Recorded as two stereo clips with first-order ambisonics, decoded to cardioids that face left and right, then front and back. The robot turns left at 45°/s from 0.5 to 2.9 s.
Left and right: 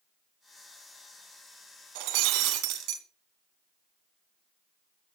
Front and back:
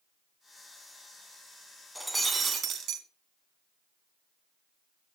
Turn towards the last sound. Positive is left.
turn(degrees=-130)